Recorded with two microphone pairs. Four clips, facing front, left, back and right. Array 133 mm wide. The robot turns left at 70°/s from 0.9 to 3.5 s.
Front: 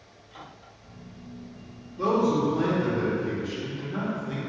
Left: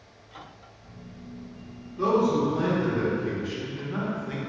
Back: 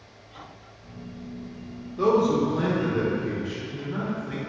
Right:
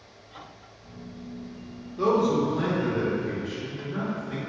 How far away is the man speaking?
About 1.4 m.